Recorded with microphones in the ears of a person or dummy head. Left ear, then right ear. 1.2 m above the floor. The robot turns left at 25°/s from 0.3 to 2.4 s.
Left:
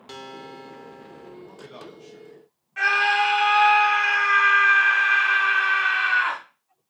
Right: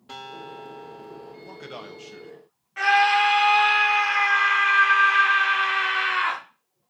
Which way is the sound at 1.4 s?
65° right (ahead or behind).